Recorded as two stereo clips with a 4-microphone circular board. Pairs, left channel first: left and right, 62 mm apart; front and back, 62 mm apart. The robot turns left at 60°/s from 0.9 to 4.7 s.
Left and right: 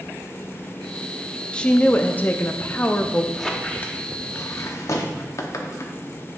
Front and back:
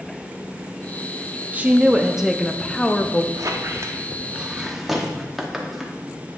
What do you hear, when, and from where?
1.5 s a woman speaking: 145° left, 0.5 m; by 3.2 s 40° left, 0.5 m
3.3 s a squeak: 175° left, 0.8 m; by 6.0 s 95° left, 0.8 m